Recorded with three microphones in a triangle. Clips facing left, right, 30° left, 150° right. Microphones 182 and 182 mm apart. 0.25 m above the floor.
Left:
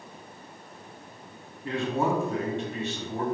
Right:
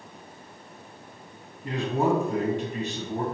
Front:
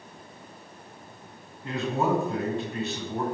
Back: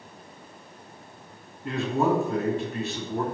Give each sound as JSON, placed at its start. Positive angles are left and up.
{"t": 1.6, "sound": "a man speaking", "azimuth_deg": -25, "distance_m": 1.9}